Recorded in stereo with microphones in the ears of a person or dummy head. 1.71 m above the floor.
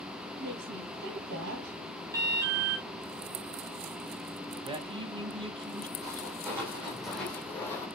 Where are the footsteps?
15° right (ahead or behind), 3 m; by 7.9 s 15° left (ahead or behind), 3 m.